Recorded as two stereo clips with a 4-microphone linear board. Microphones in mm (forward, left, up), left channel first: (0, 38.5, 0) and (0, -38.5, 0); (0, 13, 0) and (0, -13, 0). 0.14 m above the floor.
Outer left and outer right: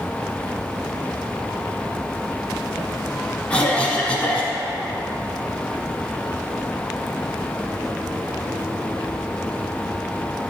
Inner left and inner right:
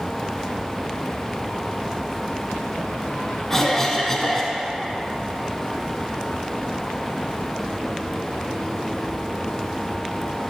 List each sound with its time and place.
3.5 s a cough: 10° left (ahead or behind), 1.2 m